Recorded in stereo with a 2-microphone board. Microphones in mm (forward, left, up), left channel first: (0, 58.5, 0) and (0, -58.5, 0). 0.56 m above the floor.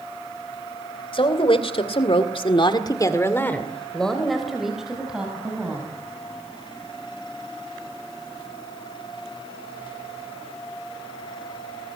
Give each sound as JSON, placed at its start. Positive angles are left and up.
{"t": 1.1, "sound": "a woman speaking", "side_deg": 50, "distance_m": 3.0}